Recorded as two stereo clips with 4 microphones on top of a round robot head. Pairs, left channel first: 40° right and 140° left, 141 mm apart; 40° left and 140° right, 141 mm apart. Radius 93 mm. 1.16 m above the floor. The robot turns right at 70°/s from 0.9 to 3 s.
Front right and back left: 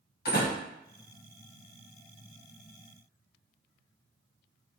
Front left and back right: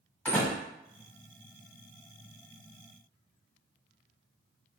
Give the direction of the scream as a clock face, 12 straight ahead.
I don't hear a scream.